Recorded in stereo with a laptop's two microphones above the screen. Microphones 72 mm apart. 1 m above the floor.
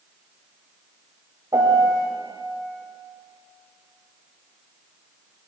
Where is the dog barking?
No dog barking in this recording.